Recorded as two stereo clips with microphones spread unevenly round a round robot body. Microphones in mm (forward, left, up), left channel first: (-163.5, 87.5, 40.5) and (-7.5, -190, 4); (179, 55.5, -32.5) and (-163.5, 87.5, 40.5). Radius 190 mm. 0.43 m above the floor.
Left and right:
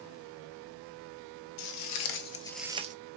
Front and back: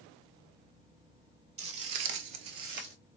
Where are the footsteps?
130° left, 0.8 m; by 3.0 s 130° right, 0.7 m.